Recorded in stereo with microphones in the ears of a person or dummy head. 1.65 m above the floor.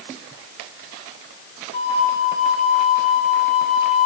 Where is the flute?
40° left (ahead or behind), 7.5 m.